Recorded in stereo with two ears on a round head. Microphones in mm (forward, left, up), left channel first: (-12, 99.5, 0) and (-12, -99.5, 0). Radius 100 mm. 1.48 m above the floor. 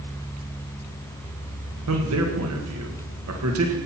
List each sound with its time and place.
1.9 s a man speaking: 80° right, 1.9 m